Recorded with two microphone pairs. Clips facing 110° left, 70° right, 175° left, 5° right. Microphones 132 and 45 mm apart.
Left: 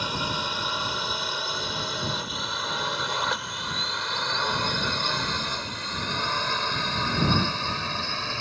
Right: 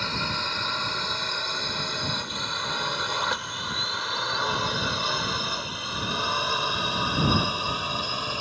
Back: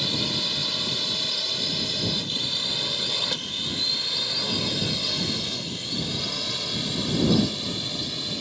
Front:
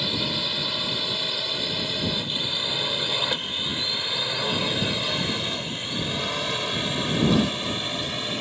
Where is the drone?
50° left; by 8.4 s 5° right.